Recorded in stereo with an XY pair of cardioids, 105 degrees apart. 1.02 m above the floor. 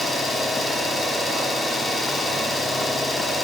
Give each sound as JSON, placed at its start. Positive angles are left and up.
{"t": 0.0, "sound": "an engine running", "azimuth_deg": 30, "distance_m": 5.0}